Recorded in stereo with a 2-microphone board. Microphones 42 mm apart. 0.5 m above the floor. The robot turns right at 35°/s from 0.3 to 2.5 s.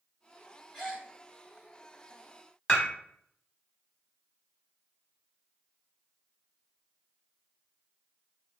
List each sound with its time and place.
0.7 s a gasp: centre (ahead or behind), 1.7 m; by 1.1 s 10° left (ahead or behind), 1.7 m
2.7 s dishes clattering: 25° left (ahead or behind), 1.3 m